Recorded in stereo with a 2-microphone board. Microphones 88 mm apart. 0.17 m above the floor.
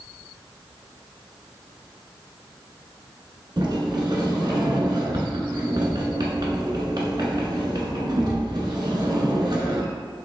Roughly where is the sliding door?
Right.